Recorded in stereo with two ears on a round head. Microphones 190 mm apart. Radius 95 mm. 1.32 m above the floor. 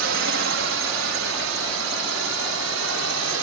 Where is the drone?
70° right (ahead or behind); by 3.4 s 75° right (ahead or behind).